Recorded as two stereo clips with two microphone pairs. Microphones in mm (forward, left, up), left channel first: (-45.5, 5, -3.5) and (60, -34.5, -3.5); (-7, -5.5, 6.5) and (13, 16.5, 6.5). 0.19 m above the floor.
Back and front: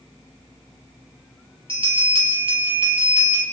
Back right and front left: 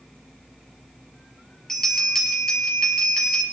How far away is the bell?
About 3.5 m.